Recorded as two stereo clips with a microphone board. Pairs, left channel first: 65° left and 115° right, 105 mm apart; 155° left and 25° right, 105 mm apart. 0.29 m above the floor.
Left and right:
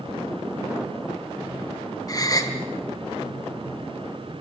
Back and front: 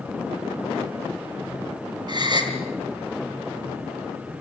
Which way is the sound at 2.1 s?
20° left.